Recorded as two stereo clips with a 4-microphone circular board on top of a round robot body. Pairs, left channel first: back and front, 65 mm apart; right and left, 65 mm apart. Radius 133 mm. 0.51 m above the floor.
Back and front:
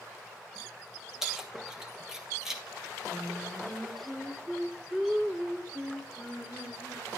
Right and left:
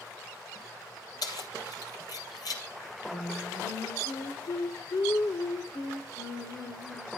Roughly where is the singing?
Right.